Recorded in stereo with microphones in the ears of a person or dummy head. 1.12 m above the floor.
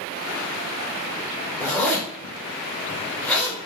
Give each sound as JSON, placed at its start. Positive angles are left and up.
{"t": 1.6, "sound": "a zipper", "side_deg": 15, "distance_m": 1.1}